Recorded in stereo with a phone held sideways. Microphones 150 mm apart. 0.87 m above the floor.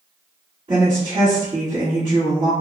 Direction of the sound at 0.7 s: 45° right (ahead or behind).